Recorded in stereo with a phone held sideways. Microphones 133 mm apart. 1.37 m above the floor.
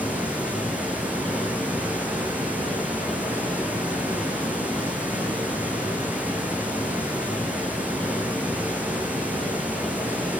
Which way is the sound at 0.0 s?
10° right (ahead or behind).